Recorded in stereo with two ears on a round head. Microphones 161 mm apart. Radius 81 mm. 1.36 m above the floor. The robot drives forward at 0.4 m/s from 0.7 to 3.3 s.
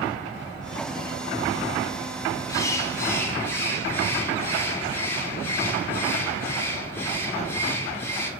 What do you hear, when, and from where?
2.5 s a bird: 20° left (ahead or behind), 0.8 m; by 8.3 s 15° left (ahead or behind), 1.1 m